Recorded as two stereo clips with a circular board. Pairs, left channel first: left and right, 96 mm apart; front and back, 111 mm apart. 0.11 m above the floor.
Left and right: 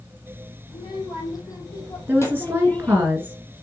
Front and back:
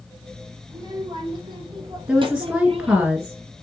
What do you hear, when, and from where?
0.7 s a child speaking: 125° left, 4 m; by 3.1 s 170° left, 2.5 m
2.1 s a woman speaking: 110° right, 1.8 m